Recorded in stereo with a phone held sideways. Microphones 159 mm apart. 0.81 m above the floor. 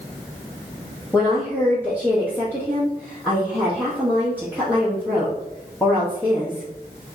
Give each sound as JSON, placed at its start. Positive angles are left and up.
{"t": 1.1, "sound": "a woman speaking", "side_deg": 10, "distance_m": 1.0}